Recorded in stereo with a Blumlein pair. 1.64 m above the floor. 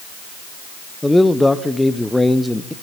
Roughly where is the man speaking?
Ahead.